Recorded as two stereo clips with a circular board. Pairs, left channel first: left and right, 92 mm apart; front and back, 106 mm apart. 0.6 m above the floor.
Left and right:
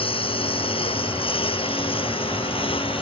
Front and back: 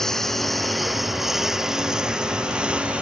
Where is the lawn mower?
85° left; by 3.0 s 100° left.